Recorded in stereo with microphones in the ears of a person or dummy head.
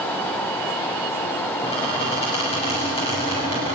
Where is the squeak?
30° left (ahead or behind), 6.5 m.